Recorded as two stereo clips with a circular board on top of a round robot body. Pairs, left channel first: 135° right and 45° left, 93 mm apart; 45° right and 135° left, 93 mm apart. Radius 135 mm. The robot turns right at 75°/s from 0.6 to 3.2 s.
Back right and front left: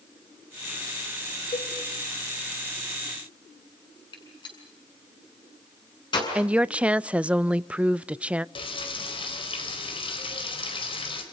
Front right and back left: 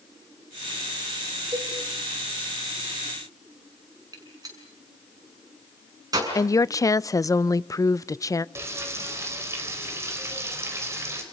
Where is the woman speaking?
25° right, 0.7 m.